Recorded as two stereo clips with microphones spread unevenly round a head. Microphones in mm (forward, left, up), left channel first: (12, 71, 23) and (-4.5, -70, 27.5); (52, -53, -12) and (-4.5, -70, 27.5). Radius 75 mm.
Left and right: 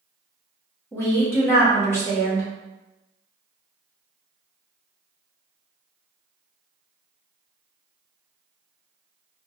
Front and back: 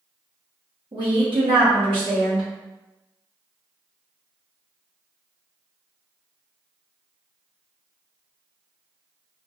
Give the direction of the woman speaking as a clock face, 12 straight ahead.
7 o'clock.